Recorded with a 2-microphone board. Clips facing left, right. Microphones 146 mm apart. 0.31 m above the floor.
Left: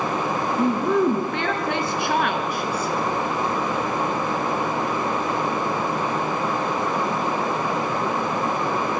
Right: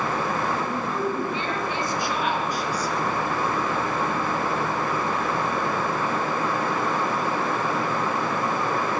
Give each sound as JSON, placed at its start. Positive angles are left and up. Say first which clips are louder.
{"t": 0.6, "sound": "a woman speaking", "louder": "left 7 dB", "side_deg": 70, "distance_m": 3.5}